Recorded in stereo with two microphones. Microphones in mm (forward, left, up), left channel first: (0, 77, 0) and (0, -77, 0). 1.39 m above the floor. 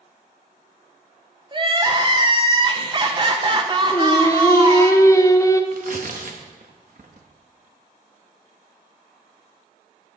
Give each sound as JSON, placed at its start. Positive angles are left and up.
{"t": 1.5, "sound": "crying", "side_deg": -30, "distance_m": 0.9}
{"t": 3.9, "sound": "singing", "side_deg": 20, "distance_m": 0.7}
{"t": 5.7, "sound": "tearing paper", "side_deg": -60, "distance_m": 1.1}